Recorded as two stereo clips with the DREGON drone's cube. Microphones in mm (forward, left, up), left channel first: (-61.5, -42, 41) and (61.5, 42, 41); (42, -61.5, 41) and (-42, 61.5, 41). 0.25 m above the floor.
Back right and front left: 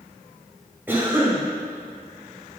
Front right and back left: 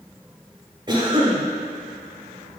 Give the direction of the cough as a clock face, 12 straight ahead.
9 o'clock.